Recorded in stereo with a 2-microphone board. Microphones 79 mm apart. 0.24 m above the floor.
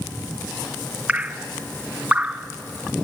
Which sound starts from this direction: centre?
Dripping, at 1.1 s.